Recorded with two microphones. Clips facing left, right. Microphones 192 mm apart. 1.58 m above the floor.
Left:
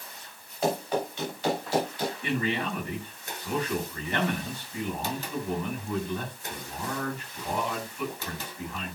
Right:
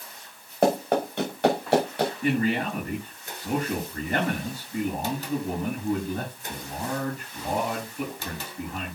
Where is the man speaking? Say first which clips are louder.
Right 4 dB; 40° right (ahead or behind), 9.5 m.